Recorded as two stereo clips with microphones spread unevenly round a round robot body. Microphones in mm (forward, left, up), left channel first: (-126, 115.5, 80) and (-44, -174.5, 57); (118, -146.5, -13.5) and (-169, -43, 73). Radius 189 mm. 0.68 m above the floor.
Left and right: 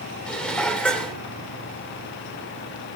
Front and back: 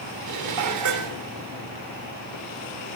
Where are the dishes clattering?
165° right, 1.5 m.